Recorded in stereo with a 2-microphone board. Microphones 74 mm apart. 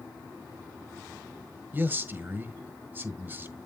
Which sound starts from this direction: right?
A man speaking, at 1.7 s.